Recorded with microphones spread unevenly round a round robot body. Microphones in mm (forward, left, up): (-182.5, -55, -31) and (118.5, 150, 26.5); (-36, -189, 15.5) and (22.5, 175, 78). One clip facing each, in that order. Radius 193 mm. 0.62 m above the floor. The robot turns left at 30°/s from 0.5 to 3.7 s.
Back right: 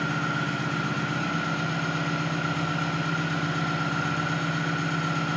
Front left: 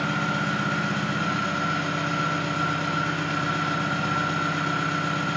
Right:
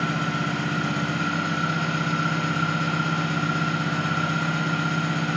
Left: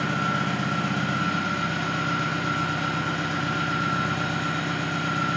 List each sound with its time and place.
0.0 s an engine running: 45° right, 1.5 m; by 5.4 s 140° right, 1.5 m